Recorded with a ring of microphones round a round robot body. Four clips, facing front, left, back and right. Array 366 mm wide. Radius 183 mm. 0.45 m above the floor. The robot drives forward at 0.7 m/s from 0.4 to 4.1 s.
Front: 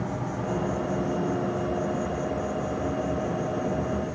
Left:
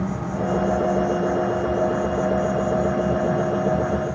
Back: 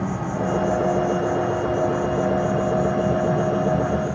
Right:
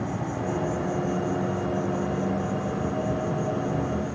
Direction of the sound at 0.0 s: Straight behind.